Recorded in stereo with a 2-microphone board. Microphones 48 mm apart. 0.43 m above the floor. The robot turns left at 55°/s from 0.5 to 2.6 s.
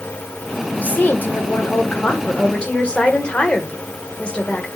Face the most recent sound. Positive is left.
turn(degrees=35)